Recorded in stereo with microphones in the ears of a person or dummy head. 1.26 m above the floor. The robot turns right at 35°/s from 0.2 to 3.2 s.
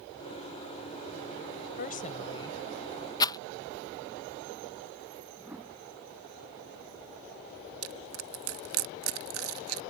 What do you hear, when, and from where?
1.8 s a woman speaking: 135° left; by 3.1 s straight behind
3.2 s a rattle: 20° left (ahead or behind)
5.4 s a whoosh: 10° right (ahead or behind)
7.8 s crushing: 90° right